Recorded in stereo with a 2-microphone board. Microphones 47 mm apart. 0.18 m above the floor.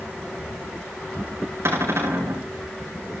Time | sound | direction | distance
1.6 | a cupboard door | 65° right (ahead or behind) | 6.5 m